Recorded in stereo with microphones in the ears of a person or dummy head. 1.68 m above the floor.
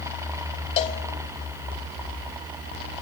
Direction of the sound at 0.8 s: 35° left (ahead or behind).